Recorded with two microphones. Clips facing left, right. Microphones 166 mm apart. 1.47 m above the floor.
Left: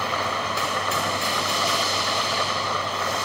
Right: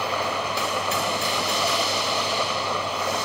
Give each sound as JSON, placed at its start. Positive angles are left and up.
{"t": 0.0, "sound": "an engine running", "side_deg": -10}